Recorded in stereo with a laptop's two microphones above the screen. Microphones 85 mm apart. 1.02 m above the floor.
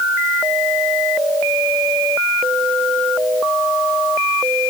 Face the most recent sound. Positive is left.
No sound to turn to.